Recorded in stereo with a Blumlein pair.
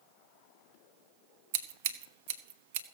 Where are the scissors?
50° right, 1.2 m.